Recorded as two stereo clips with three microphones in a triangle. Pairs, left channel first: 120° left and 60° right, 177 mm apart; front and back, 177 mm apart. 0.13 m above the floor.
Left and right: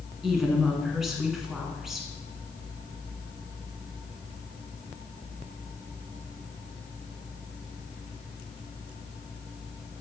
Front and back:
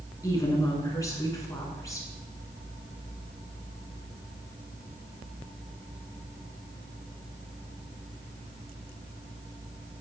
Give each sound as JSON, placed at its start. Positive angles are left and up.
{"t": 0.2, "sound": "a woman speaking", "azimuth_deg": 25, "distance_m": 1.2}